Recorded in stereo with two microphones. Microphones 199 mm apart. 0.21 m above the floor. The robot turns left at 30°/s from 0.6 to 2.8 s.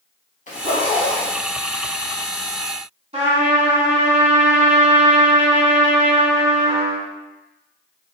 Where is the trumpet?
30° right (ahead or behind), 0.7 m.